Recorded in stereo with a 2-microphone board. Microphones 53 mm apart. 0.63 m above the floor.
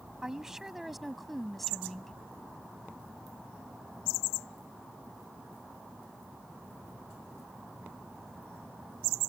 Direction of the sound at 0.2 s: 10° right (ahead or behind).